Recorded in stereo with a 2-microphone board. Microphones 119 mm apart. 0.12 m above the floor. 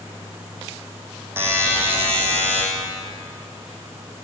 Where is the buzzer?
20° right (ahead or behind), 3.5 m.